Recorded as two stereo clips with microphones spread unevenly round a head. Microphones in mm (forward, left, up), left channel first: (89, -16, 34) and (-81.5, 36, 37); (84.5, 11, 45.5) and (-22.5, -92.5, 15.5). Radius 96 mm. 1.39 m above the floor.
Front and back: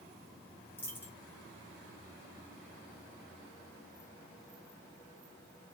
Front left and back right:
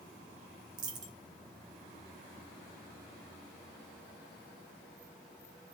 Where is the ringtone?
I don't hear a ringtone.